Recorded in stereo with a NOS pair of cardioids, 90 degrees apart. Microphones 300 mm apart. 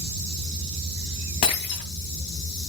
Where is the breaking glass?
65° left, 2.5 m.